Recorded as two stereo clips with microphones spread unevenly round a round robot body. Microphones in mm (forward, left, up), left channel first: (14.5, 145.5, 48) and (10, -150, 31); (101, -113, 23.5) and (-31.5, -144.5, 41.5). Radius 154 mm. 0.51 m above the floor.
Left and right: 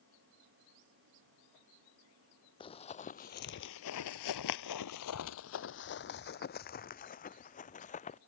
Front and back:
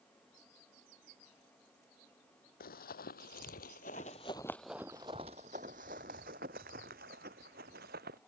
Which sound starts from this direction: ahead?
Running footsteps, at 2.6 s.